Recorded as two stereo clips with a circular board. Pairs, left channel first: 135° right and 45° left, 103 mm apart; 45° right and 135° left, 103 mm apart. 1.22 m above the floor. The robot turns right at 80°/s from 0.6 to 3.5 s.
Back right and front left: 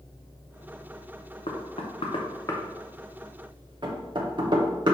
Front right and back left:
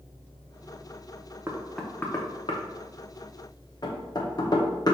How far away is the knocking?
About 0.8 m.